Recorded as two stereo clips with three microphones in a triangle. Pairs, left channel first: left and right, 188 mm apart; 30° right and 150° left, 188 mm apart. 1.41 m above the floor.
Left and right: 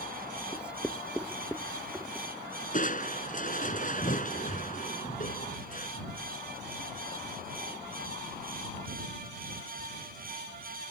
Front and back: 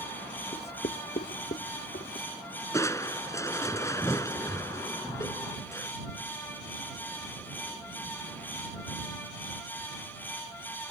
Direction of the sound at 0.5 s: 5° right.